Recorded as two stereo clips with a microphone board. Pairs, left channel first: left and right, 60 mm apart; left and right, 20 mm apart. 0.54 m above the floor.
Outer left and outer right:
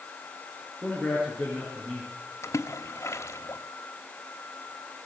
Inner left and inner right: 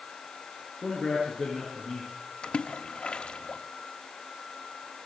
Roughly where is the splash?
Left.